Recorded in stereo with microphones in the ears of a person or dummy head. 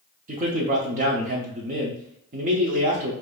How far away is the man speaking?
About 0.9 m.